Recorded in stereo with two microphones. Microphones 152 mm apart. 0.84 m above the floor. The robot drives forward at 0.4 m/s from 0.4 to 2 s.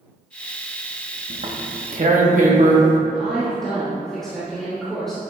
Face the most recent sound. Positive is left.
turn(degrees=5)  # may be behind; listen again after turning